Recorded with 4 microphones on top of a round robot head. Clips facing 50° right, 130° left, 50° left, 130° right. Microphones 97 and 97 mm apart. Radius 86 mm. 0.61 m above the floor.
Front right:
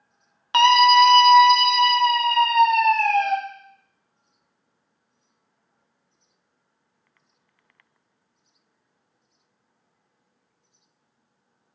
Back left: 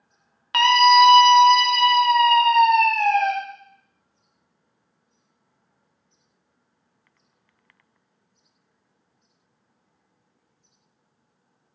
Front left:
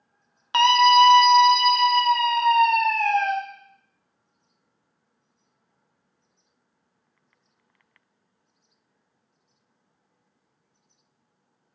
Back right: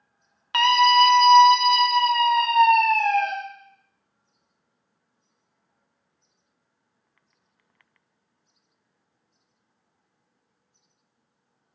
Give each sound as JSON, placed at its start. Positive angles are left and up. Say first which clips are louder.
{"t": 0.5, "sound": "a scream", "louder": "even, front left 2 dB", "azimuth_deg": 0, "distance_m": 0.7}